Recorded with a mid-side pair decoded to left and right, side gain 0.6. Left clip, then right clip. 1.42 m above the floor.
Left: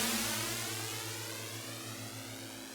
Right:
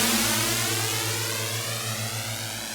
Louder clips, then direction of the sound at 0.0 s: Right 11 dB; 50° right.